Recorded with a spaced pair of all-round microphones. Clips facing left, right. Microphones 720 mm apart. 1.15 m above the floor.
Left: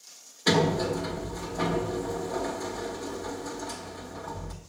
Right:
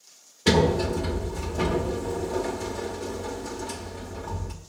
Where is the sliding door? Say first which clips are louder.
Right 3 dB; 65° right (ahead or behind), 1.1 m.